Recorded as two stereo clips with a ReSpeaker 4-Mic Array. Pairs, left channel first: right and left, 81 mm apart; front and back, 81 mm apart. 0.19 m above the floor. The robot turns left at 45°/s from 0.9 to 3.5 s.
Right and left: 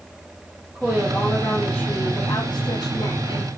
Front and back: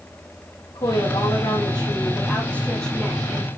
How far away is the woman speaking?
About 6.5 m.